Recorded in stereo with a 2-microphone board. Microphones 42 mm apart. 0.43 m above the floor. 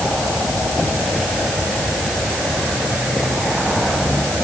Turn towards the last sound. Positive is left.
No sound to turn to.